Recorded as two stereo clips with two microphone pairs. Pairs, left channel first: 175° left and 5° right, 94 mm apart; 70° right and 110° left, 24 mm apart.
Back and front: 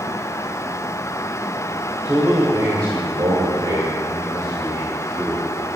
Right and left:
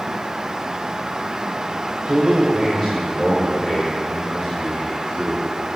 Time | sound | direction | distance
2.0 | a man speaking | 50° left | 1.8 m